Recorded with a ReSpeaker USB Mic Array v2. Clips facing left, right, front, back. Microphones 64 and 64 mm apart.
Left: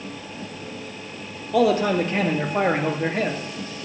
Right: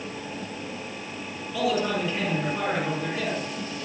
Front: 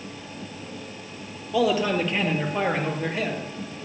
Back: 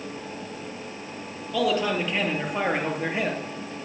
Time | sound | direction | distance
1.5 | a man speaking | 80° left | 3.5 m